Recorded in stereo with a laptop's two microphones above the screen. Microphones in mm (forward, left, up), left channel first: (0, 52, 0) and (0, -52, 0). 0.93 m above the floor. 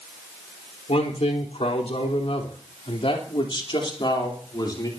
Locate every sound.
0.9 s a man speaking: 75° left (ahead or behind), 3.5 m; by 4.9 s 40° left (ahead or behind), 3 m